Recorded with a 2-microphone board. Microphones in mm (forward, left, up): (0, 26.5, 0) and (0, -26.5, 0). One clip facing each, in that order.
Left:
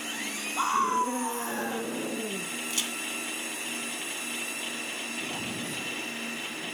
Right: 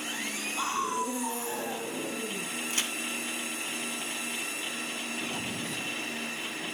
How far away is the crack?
About 1.9 m.